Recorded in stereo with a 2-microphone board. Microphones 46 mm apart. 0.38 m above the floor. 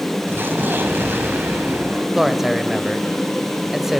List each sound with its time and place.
0.3 s an explosion: 45° right (ahead or behind), 2.5 m
2.1 s a man speaking: 10° right (ahead or behind), 1.2 m